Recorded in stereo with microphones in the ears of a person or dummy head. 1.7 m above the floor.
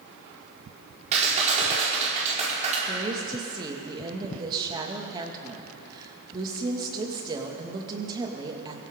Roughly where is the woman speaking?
Right.